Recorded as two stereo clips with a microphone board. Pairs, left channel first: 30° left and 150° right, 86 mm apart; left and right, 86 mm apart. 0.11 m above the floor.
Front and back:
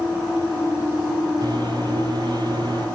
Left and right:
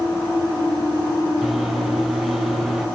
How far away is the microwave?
About 2 m.